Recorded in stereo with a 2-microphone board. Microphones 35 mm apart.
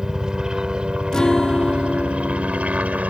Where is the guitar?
20° left (ahead or behind).